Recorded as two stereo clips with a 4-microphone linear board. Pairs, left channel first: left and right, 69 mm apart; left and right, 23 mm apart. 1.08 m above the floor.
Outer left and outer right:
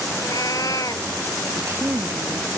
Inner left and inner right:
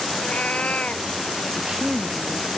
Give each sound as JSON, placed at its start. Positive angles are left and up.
{"t": 0.1, "sound": "a cat meowing", "side_deg": 55}
{"t": 1.6, "sound": "a woman speaking", "side_deg": -45}